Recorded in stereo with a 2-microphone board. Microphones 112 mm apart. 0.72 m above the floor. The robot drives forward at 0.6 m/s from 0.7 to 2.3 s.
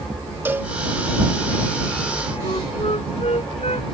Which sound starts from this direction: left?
A flute, at 2.4 s.